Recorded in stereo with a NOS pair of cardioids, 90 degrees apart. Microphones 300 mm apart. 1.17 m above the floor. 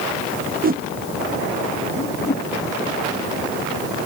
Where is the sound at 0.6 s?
30° right.